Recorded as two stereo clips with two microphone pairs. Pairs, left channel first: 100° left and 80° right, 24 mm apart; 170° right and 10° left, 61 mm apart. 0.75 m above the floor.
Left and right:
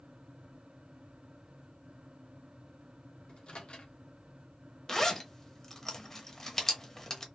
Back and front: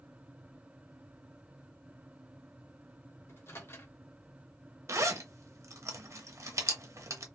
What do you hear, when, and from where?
3.3 s a microwave: 145° left, 1.1 m
4.9 s a zipper: 35° left, 0.8 m